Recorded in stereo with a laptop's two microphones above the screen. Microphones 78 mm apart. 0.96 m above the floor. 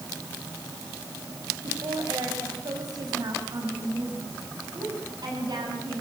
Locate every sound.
1.6 s a woman speaking: 60° right (ahead or behind), 5.5 m